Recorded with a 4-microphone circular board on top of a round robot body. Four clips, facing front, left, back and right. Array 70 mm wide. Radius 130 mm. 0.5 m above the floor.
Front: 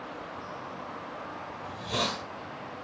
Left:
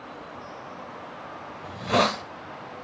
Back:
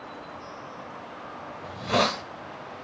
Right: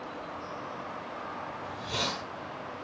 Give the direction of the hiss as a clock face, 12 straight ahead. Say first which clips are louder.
Left 14 dB, back 8 dB; 8 o'clock.